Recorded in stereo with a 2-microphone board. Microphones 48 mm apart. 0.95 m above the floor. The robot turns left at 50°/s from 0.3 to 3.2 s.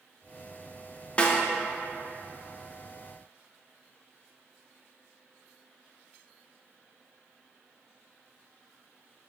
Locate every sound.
1.2 s a snare drum: 25° left (ahead or behind), 0.8 m; by 1.4 s 20° left (ahead or behind), 0.8 m